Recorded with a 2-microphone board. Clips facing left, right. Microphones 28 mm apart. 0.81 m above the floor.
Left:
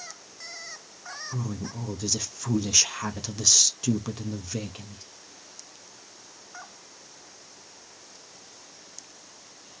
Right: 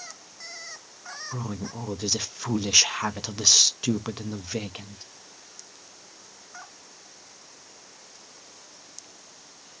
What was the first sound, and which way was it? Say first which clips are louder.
A woman speaking: right 1 dB; 25° right (ahead or behind).